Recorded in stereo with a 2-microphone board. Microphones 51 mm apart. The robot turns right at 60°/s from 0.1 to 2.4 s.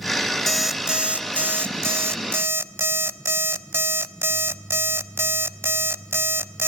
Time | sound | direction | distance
0.5 | an alarm clock | 175° left | 0.9 m